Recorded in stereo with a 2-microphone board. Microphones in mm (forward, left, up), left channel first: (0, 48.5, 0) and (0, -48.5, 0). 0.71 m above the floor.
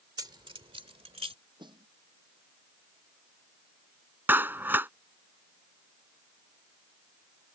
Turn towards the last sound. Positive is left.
turn(degrees=-20)  # may be behind; listen again after turning